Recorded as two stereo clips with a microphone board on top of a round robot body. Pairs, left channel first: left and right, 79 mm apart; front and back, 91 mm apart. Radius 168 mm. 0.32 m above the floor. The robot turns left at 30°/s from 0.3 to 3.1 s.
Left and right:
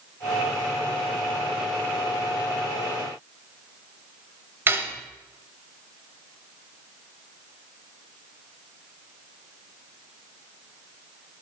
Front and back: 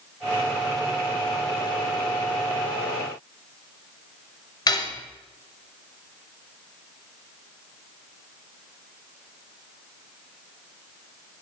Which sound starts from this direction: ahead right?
Cutlery clinking, at 4.7 s.